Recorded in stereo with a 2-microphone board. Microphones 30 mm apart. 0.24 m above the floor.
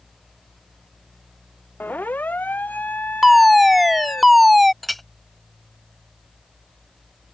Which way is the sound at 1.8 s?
80° left.